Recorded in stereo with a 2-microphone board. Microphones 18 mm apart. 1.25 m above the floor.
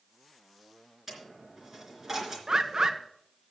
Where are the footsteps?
No footsteps in this recording.